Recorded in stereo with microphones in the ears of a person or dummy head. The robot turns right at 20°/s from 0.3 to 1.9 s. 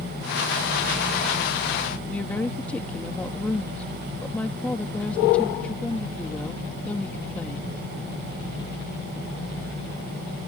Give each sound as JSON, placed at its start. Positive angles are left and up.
{"t": 2.1, "sound": "a woman speaking", "side_deg": 5}